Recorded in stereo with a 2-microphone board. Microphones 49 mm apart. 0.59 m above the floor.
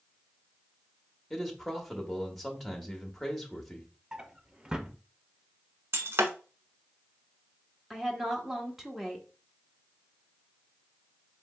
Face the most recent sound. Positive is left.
turn(degrees=-5)  # may be behind; listen again after turning